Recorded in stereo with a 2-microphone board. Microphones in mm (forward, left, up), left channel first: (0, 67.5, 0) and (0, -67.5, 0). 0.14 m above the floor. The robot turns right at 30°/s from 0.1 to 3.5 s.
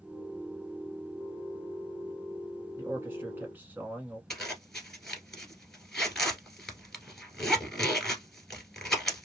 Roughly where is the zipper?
Centre.